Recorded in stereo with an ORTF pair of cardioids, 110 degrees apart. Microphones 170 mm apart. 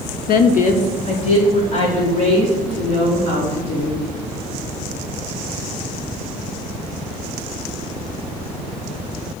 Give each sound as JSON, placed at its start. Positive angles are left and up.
{"t": 0.3, "sound": "a woman speaking", "azimuth_deg": 65, "distance_m": 0.5}